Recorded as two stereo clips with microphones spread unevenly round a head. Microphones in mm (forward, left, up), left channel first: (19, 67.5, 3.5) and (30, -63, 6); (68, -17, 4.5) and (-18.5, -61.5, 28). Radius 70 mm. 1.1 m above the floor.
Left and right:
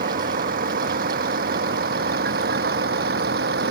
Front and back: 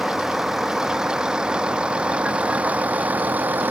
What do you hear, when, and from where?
0.0 s a vehicle: 65° right; by 3.7 s 80° right